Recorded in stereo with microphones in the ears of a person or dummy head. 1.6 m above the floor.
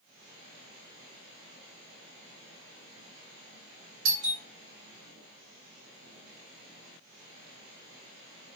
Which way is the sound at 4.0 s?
65° right (ahead or behind).